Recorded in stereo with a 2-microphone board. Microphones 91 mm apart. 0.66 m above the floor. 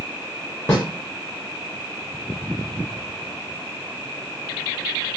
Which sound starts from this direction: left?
A snare drum, at 0.7 s.